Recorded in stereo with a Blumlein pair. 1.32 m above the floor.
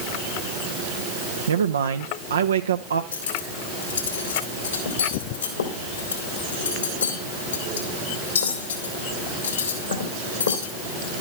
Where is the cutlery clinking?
70° left, 3 m.